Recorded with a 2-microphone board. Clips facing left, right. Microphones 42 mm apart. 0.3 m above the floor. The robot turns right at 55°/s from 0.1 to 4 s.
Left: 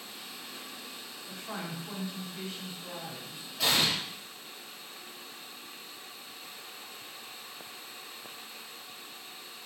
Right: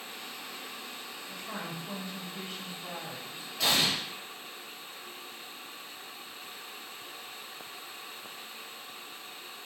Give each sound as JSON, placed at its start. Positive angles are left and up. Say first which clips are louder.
{"t": 1.3, "sound": "a woman speaking", "louder": "left 1 dB", "azimuth_deg": 140, "distance_m": 1.8}
{"t": 3.6, "sound": "an explosion", "louder": "even", "side_deg": 5, "distance_m": 1.6}